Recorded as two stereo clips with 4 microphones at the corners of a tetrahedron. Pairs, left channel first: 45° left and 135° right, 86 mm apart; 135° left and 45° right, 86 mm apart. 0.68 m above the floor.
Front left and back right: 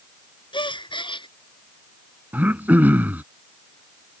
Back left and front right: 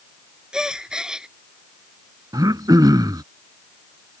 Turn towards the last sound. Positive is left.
turn(degrees=-70)